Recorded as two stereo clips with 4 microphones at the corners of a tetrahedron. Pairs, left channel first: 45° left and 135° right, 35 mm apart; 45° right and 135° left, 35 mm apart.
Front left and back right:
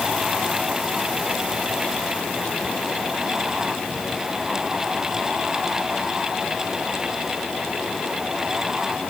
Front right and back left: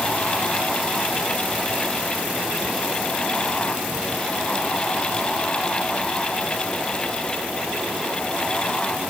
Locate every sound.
Only background noise.